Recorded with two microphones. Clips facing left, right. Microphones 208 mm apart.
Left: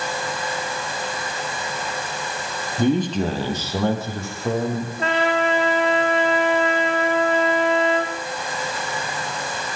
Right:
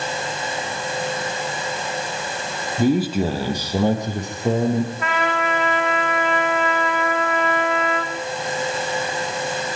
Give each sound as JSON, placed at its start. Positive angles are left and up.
{"t": 2.8, "sound": "a man speaking", "side_deg": -5, "distance_m": 4.5}
{"t": 5.0, "sound": "a trumpet", "side_deg": 30, "distance_m": 5.0}